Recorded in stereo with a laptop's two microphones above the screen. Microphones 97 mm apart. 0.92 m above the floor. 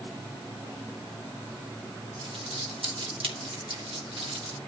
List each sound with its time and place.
2.2 s crumpling: 70° right (ahead or behind), 3 m